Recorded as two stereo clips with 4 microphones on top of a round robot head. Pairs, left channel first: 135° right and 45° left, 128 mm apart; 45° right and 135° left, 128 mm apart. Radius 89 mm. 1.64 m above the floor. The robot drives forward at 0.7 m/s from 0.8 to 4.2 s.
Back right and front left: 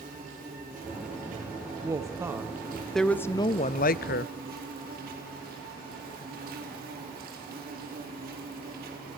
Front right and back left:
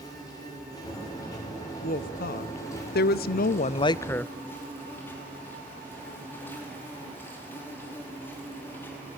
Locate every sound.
0.0 s an insect: 20° left, 6 m; by 9.2 s 30° left, 3.5 m
1.8 s a woman speaking: 20° right, 1.4 m; by 4.3 s 125° right, 0.6 m